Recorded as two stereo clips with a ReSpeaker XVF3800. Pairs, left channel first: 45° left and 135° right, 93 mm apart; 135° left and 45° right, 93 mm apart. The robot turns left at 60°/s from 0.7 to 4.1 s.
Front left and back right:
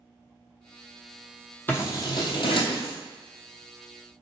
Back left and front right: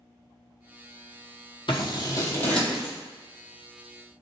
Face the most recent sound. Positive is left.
turn(degrees=-35)